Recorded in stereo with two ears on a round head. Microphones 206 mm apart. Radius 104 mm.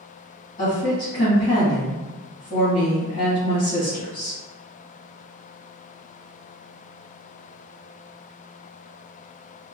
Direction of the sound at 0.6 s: 20° left (ahead or behind).